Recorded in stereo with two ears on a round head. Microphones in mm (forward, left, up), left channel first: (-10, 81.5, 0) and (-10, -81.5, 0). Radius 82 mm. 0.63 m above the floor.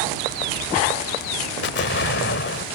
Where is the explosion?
65° left (ahead or behind).